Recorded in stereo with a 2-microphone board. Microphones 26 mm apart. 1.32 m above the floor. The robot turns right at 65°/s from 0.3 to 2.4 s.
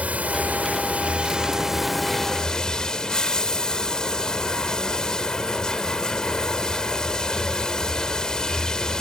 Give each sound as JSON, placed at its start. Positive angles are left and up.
{"t": 0.0, "sound": "running water", "azimuth_deg": -105}